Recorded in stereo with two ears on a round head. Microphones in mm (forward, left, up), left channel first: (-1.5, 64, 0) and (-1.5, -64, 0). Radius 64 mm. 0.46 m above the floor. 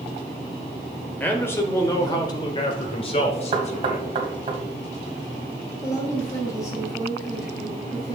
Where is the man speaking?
15° left (ahead or behind), 1.8 m; by 4.2 s 55° left (ahead or behind), 2 m.